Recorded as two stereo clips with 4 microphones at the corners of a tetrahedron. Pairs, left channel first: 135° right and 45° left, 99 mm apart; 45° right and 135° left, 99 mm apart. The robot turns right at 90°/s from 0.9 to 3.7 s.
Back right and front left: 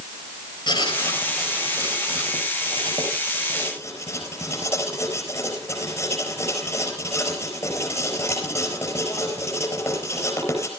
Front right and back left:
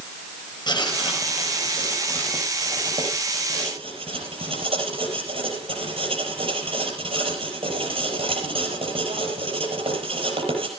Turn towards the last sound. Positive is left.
turn(degrees=160)